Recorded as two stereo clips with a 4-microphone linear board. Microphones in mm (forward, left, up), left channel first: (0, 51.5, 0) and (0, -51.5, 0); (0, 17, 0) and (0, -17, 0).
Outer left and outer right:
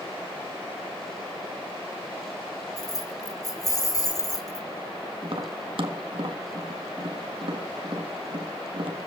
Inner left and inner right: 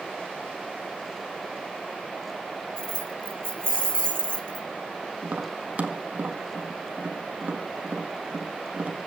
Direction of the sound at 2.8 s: 35° left (ahead or behind).